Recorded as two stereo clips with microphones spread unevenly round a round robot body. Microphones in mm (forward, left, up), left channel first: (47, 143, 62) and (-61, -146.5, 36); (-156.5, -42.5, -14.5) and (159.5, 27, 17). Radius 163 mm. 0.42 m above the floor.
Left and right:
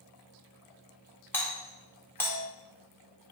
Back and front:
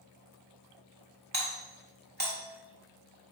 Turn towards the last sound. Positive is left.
turn(degrees=-15)